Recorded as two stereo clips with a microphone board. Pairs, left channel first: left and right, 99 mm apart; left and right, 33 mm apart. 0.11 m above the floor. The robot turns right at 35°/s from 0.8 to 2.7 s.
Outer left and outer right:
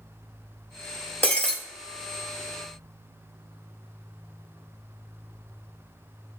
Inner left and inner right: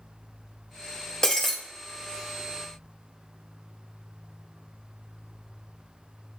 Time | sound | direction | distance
1.2 | breaking glass | 20° left (ahead or behind) | 0.7 m